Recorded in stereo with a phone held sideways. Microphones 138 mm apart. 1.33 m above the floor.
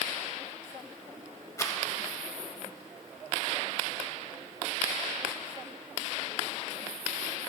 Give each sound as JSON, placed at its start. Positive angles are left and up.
{"t": 1.6, "sound": "a rattle", "side_deg": 25, "distance_m": 2.0}